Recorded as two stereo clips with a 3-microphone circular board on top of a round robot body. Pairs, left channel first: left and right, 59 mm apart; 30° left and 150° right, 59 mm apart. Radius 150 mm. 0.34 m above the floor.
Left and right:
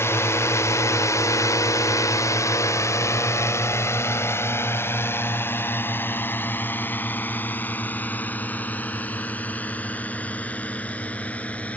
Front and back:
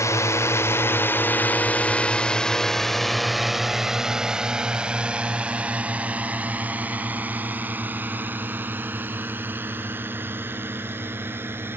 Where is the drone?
50° left; by 11.8 s 155° left.